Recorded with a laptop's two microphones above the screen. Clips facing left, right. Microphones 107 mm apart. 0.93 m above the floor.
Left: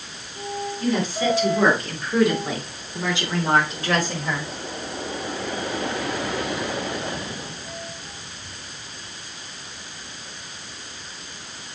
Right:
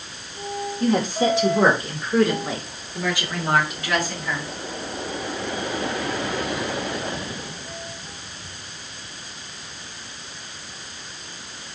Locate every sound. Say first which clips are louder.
0.8 s a woman speaking: right 3 dB; 35° right (ahead or behind), 3 m; by 4.5 s 45° left (ahead or behind), 4.5 m